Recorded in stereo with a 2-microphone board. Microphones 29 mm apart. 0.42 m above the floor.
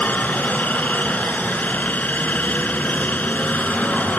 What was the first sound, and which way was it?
A helicopter, 60° left (ahead or behind).